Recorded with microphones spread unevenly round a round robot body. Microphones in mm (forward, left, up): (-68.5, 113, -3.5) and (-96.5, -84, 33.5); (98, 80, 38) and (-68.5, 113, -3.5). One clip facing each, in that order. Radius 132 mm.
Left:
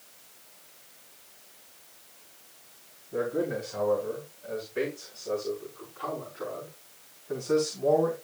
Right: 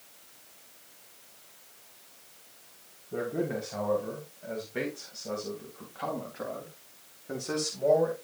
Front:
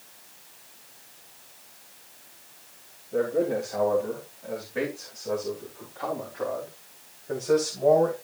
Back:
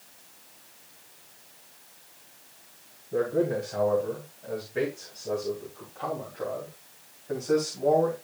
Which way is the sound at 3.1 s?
125° right.